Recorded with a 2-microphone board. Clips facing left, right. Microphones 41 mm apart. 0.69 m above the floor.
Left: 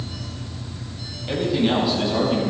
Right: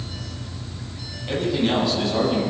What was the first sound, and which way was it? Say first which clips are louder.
A man speaking: left 1 dB; centre (ahead or behind).